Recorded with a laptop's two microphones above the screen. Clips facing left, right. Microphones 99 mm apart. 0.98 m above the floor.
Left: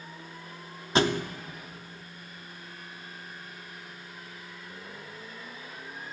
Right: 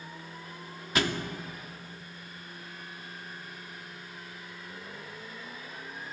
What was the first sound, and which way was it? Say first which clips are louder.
A thud: left 5 dB; 30° left (ahead or behind).